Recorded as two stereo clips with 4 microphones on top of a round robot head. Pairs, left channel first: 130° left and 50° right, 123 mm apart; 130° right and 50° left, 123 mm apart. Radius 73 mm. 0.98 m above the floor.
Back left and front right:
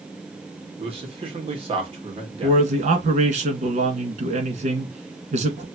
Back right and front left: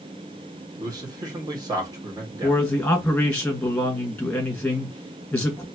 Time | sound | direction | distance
0.8 | a man speaking | 10° right | 1.7 m
2.4 | a man speaking | 50° right | 1.7 m